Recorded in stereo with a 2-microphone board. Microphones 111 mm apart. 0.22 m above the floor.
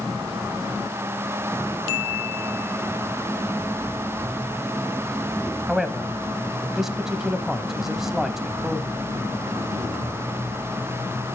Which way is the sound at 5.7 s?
5° right (ahead or behind).